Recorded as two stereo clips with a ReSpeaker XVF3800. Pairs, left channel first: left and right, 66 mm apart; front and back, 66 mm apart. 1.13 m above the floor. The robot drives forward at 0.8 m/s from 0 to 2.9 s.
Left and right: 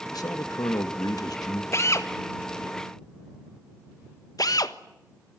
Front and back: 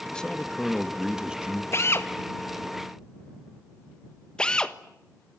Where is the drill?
45° left, 1.8 m; by 4.8 s 75° left, 1.3 m.